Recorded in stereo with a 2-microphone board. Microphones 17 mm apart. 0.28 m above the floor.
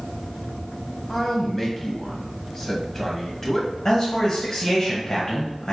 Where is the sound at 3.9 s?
30° left (ahead or behind), 1.2 m.